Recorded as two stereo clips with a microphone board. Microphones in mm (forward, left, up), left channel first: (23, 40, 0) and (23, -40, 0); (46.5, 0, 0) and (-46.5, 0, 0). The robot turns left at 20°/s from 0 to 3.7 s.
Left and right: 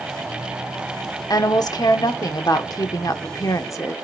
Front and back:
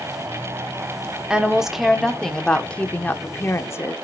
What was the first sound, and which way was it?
A woman speaking, 100° left.